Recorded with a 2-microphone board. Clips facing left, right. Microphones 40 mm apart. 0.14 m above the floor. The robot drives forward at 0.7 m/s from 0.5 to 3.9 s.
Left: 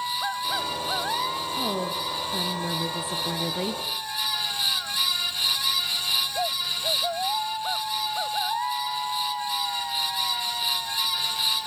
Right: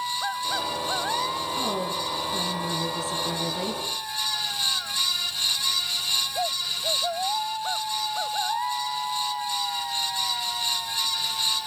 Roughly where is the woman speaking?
Centre.